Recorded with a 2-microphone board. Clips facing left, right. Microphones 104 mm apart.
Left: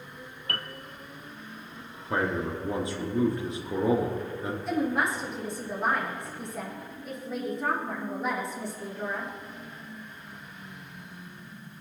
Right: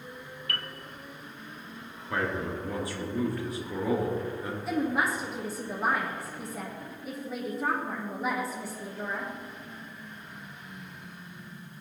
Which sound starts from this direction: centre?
A woman speaking, at 4.7 s.